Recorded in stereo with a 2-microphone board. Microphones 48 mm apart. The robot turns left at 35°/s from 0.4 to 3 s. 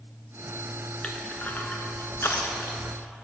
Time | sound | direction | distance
1.0 | crushing | 25° left (ahead or behind) | 0.8 m